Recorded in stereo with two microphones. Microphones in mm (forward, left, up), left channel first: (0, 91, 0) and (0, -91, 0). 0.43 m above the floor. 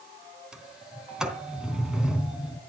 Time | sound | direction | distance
0.5 | a sliding door | 5° right (ahead or behind) | 3 m